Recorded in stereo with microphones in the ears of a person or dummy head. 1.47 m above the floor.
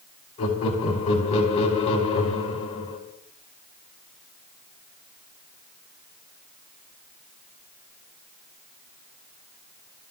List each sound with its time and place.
0.4 s laughter: 35° left (ahead or behind), 3.5 m